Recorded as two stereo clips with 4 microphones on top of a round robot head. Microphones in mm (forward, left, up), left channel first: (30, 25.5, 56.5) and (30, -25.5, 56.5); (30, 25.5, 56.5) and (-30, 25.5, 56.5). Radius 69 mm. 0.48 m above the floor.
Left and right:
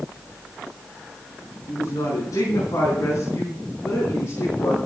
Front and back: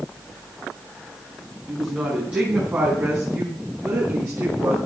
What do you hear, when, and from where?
1.7 s a woman speaking: 100° left, 4.5 m; by 4.8 s 140° left, 6.5 m